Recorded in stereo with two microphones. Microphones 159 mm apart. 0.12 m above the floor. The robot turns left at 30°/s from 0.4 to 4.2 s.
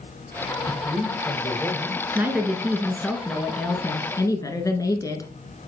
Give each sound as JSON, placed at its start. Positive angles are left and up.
{"t": 0.7, "sound": "a man speaking", "azimuth_deg": 25, "distance_m": 2.5}
{"t": 2.1, "sound": "a woman speaking", "azimuth_deg": -155, "distance_m": 1.5}